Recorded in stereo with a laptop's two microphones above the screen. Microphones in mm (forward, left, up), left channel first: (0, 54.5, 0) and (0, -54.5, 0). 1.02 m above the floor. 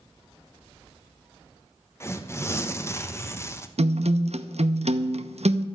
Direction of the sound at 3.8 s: 75° right (ahead or behind).